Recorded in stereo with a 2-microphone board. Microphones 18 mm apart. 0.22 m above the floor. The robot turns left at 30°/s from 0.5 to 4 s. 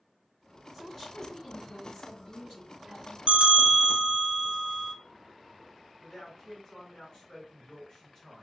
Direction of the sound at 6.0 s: 35° left (ahead or behind).